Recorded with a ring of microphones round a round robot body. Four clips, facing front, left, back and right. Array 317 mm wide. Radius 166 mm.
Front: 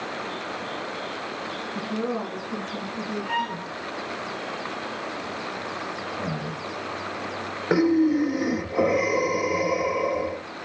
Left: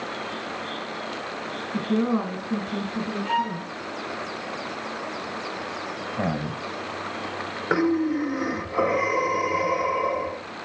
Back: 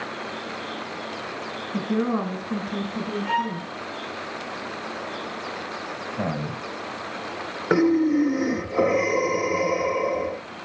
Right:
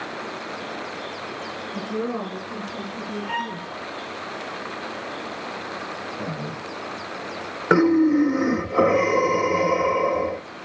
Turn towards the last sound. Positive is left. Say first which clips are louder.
# right 6 dB, back 1 dB
turn(degrees=-100)